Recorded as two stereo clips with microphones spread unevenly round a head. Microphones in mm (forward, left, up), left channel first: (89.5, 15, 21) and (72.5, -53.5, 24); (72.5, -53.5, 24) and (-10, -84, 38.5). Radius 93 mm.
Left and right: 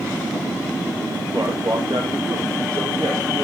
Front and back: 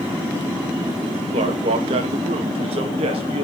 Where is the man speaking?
175° right, 1.9 m.